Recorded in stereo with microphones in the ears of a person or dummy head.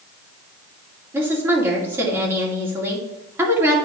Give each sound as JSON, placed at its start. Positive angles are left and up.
{"t": 1.1, "sound": "a woman speaking", "side_deg": -15, "distance_m": 2.5}